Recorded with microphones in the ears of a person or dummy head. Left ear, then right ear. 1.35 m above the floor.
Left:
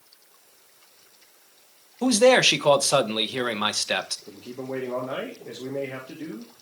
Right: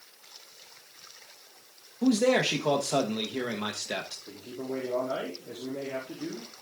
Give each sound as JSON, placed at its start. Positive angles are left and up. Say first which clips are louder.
{"t": 2.0, "sound": "a man speaking", "louder": "left 7 dB", "side_deg": 50, "distance_m": 1.0}
{"t": 4.3, "sound": "a man speaking", "louder": "left 2 dB", "side_deg": 75, "distance_m": 2.0}